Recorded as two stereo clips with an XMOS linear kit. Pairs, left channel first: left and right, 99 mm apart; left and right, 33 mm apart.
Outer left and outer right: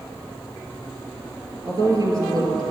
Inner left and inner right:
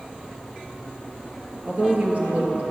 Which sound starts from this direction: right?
A woman speaking, at 1.6 s.